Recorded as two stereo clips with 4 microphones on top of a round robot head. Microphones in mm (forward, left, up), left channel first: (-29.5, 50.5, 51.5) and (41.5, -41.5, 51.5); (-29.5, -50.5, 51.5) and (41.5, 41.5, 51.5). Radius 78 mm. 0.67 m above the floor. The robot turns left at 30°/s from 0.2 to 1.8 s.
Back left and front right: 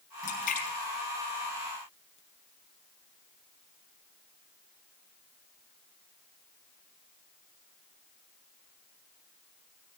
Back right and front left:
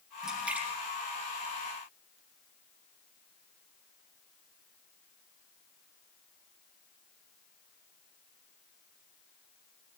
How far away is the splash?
About 4.5 m.